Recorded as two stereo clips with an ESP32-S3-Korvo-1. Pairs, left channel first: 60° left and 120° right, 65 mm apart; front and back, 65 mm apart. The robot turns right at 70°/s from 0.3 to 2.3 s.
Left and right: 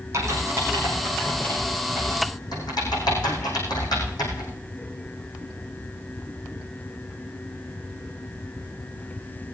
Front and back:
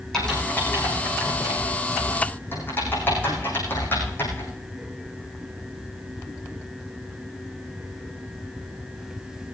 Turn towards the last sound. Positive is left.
turn(degrees=60)